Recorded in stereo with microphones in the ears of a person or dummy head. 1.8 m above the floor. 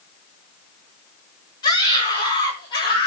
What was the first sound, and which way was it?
A scream, 20° left (ahead or behind).